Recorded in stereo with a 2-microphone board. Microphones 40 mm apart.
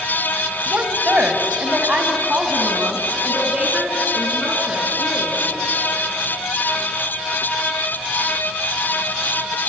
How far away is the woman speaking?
About 2 m.